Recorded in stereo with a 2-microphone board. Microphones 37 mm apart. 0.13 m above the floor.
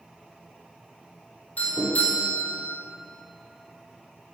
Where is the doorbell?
45° left (ahead or behind), 5 m.